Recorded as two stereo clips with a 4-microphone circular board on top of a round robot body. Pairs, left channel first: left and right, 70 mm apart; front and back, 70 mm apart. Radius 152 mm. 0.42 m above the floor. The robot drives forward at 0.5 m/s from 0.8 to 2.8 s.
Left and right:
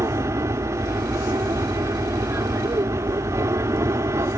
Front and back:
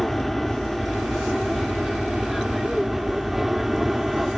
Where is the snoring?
I don't hear snoring.